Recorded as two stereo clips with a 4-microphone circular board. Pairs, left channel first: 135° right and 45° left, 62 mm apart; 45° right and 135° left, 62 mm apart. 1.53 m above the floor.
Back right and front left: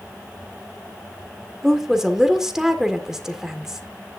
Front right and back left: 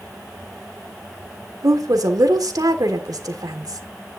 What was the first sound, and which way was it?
A woman speaking, 125° left.